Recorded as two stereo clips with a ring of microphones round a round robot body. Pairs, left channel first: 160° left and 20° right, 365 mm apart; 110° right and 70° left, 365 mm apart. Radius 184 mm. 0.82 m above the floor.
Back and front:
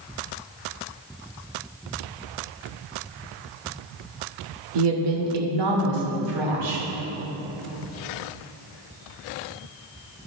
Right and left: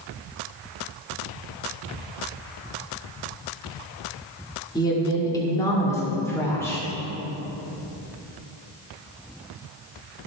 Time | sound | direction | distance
4.8 | a woman speaking | 35° right | 1.5 m